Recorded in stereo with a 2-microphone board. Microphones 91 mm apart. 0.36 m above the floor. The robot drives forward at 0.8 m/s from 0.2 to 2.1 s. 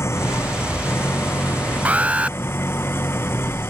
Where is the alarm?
15° right (ahead or behind).